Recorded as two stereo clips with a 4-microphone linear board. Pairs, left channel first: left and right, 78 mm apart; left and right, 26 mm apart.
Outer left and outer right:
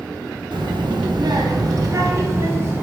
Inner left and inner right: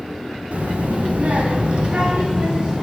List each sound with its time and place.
0.5 s a child speaking: 70° right (ahead or behind), 1.8 m; by 2.8 s 30° right (ahead or behind), 3 m